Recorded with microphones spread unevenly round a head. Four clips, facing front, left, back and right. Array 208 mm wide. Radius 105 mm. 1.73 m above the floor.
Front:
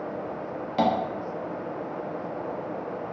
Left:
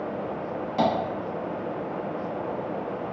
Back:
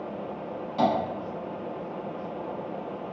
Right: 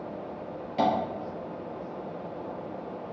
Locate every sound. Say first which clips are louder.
0.8 s tapping: left 1 dB, front 1 dB; 15° left, 0.7 m